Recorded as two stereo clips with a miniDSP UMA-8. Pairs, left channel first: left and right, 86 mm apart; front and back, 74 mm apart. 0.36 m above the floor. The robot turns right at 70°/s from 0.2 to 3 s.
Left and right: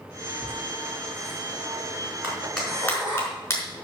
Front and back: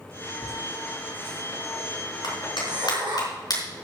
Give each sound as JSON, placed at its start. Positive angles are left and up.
{"t": 0.4, "sound": "laughter", "azimuth_deg": 5, "distance_m": 4.5}
{"t": 2.2, "sound": "a clap", "azimuth_deg": -25, "distance_m": 4.5}